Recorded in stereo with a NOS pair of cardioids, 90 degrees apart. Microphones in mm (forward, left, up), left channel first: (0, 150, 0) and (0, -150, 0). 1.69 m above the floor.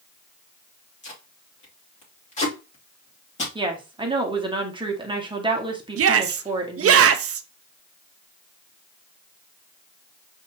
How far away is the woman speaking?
About 1.8 m.